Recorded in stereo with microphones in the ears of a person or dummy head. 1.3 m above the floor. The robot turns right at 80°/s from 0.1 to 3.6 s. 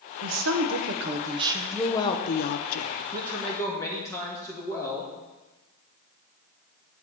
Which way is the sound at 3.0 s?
35° right.